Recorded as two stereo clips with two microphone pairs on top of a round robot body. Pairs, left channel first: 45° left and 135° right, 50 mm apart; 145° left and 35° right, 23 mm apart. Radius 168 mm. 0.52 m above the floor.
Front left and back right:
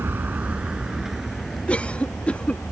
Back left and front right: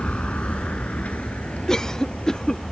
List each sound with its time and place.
0.0 s a vehicle: 175° left; by 2.7 s 125° left
1.7 s a cough: 105° left